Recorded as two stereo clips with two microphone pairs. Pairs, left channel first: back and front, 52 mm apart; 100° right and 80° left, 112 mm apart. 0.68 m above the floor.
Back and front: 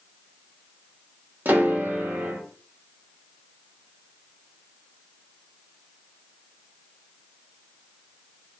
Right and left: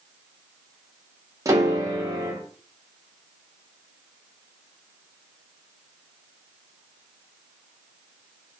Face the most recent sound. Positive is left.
turn(degrees=30)